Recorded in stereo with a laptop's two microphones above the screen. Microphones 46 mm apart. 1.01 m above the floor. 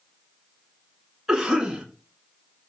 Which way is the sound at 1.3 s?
5° right (ahead or behind).